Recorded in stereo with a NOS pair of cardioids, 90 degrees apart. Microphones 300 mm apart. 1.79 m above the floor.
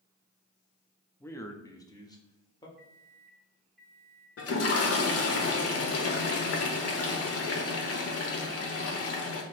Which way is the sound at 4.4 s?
50° left.